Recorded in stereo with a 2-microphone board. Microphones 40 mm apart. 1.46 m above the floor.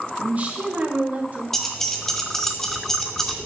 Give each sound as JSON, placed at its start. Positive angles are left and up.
{"t": 0.2, "sound": "a woman speaking", "side_deg": -35, "distance_m": 1.2}
{"t": 1.5, "sound": "keys jangling", "side_deg": 10, "distance_m": 0.8}